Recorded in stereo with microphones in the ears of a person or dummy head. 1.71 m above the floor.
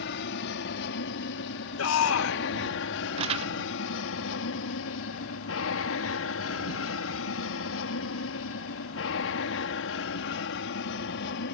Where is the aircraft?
65° left (ahead or behind); by 11.5 s 60° left (ahead or behind).